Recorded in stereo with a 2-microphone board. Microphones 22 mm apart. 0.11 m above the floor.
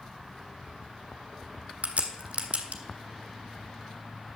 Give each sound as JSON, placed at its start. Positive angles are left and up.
{"t": 1.8, "sound": "a crack", "side_deg": -65, "distance_m": 1.6}